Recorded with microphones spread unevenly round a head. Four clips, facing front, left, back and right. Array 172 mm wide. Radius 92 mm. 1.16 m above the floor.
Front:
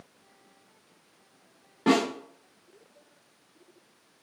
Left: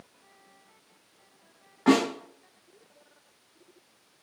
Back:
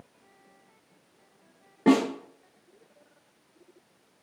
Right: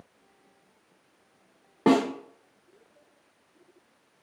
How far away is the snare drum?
About 2.5 m.